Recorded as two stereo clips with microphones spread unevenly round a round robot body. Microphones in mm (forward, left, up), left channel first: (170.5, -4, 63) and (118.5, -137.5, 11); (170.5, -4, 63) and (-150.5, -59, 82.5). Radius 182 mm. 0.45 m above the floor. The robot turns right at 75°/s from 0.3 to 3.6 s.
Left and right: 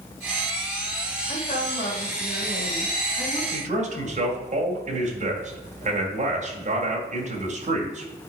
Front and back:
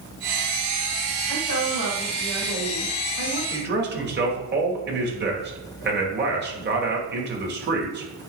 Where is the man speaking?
120° right, 2 m; by 8.1 s 110° right, 2 m.